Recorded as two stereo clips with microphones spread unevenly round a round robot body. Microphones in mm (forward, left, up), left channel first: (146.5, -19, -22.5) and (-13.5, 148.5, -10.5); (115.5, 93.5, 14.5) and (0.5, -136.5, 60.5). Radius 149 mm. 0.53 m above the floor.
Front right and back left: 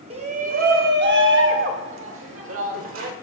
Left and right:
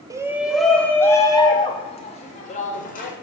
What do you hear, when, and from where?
0.1 s a shout: 160° left, 1.0 m; by 3.1 s 115° left, 2 m